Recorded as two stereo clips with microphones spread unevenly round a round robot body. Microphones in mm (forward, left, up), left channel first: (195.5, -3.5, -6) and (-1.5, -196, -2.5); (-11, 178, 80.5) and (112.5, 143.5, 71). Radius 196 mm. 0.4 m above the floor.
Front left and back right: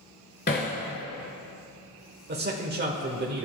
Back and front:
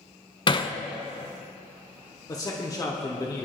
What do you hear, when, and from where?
0.5 s hammering: 110° left, 1.2 m
2.3 s a man speaking: 145° right, 1.3 m